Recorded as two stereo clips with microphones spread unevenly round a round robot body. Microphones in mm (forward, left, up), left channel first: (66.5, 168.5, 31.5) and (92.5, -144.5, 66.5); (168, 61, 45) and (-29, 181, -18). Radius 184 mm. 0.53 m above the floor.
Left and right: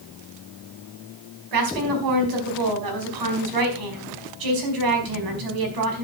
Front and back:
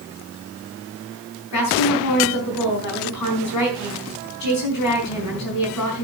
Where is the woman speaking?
75° right, 4.5 m.